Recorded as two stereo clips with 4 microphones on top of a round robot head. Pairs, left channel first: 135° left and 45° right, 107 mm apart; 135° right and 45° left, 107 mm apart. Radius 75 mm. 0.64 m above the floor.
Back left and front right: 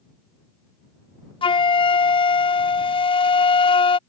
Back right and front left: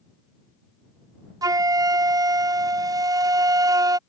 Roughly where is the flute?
Left.